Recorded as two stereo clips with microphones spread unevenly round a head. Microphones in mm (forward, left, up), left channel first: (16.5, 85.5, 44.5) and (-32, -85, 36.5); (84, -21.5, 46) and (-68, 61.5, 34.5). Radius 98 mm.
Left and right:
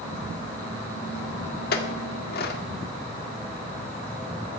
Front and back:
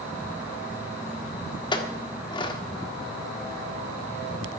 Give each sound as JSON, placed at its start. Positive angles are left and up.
{"t": 1.7, "sound": "a clink", "azimuth_deg": 35, "distance_m": 1.6}